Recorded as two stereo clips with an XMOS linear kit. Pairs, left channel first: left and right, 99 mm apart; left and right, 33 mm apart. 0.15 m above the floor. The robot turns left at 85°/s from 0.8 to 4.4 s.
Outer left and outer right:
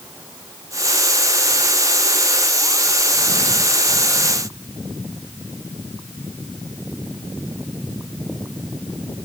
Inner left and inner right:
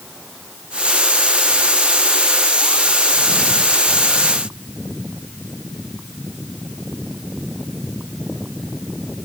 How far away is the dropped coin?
I don't hear a dropped coin.